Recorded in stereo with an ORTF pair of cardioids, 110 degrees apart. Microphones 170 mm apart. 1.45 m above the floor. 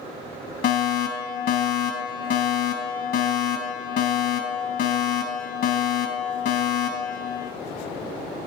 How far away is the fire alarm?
About 3.5 m.